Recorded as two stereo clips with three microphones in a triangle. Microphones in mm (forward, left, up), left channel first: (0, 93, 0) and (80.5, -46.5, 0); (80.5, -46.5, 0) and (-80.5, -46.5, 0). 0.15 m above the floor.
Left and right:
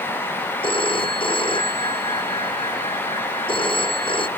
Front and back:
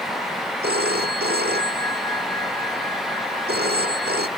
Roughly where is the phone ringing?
Behind.